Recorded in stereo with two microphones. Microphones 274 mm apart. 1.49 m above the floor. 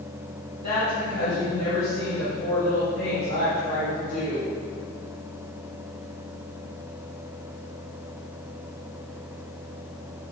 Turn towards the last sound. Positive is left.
turn(degrees=80)